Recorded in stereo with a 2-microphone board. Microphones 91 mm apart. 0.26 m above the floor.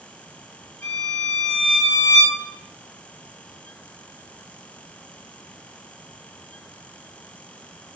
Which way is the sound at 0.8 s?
15° left (ahead or behind).